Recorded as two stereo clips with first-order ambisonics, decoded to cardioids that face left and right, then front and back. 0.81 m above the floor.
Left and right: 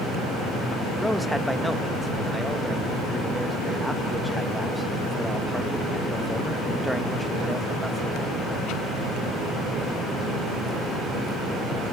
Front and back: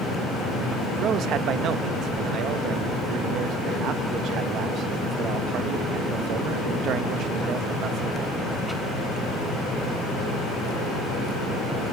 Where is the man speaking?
175° left, 0.6 m.